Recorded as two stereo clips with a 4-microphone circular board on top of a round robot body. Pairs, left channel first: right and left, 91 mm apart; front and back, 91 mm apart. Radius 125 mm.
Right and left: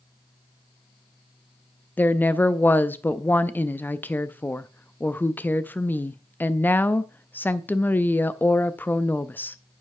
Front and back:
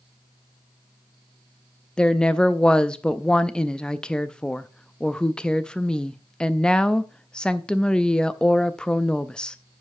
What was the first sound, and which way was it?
A woman speaking, 65° right.